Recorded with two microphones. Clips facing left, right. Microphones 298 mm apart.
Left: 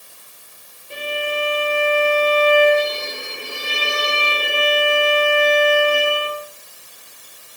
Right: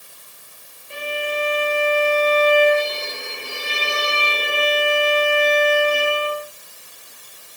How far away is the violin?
About 6 m.